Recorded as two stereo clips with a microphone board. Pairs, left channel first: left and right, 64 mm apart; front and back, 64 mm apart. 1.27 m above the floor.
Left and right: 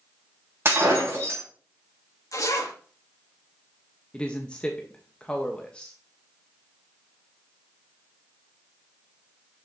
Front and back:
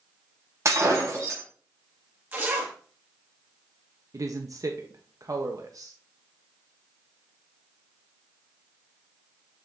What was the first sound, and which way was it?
Breaking glass, 140° right.